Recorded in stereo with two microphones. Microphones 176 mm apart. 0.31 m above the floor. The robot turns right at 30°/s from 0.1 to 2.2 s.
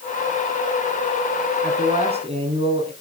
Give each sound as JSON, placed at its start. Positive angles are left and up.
{"t": 1.6, "sound": "a man speaking", "side_deg": -50, "distance_m": 3.5}